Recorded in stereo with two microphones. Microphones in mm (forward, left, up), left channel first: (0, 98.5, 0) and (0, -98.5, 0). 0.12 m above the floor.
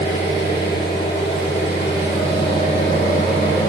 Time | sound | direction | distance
0.0 | an engine running | 65° left (ahead or behind) | 4 m